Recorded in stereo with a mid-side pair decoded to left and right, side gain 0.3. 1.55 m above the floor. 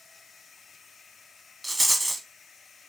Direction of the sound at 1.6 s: 30° right.